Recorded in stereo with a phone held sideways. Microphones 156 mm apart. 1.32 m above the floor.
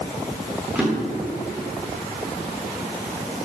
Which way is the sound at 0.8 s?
5° right (ahead or behind).